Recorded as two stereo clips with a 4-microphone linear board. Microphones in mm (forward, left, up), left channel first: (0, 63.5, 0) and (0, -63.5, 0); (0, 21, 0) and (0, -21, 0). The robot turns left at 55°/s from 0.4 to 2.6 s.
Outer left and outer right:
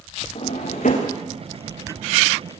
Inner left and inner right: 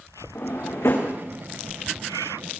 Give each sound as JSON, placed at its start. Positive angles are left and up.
{"t": 0.3, "sound": "a drawer", "side_deg": 55, "distance_m": 5.0}